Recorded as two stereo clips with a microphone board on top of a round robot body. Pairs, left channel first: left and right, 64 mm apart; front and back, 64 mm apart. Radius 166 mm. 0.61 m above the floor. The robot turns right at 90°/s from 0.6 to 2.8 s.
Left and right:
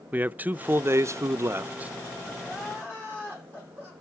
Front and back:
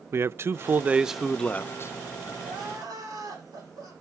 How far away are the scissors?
No scissors in this recording.